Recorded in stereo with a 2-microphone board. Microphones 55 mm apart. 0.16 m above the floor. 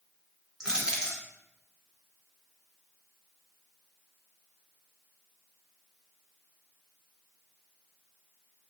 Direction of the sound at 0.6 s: 10° right (ahead or behind).